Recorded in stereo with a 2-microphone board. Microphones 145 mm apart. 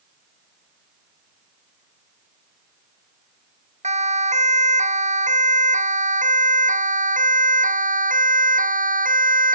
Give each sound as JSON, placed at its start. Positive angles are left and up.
{"t": 3.8, "sound": "a siren", "side_deg": -50}